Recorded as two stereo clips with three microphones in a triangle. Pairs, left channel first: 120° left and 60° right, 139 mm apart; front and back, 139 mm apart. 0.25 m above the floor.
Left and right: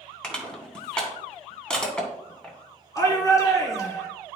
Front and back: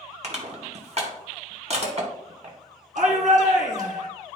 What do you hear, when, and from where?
0.2 s crushing: 155° right, 2 m
3.0 s a shout: straight behind, 2.5 m